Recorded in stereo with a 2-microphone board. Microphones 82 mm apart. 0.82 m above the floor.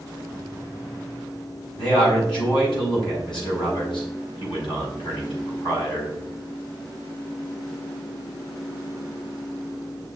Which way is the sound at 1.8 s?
70° left (ahead or behind).